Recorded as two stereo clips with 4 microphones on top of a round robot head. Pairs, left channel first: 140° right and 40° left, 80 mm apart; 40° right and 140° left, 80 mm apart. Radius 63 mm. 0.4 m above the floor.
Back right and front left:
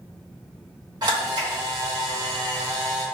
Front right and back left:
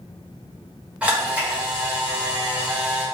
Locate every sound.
1.0 s a camera shutter: 65° left, 1.9 m